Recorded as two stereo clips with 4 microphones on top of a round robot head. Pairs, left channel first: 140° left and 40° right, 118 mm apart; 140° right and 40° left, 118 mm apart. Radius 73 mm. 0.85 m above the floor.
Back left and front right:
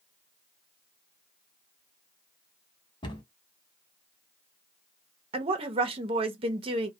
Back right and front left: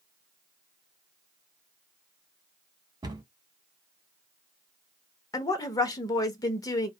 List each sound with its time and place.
3.0 s a cupboard door: 95° left, 1.1 m
5.3 s a woman speaking: 80° right, 0.8 m